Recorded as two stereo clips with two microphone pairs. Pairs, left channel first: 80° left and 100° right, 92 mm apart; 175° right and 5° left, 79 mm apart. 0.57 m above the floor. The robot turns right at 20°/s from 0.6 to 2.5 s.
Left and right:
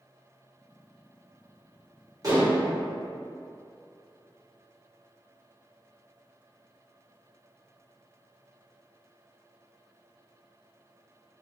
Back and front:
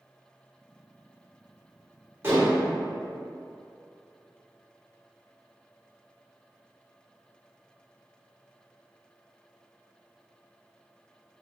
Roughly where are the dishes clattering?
Ahead right.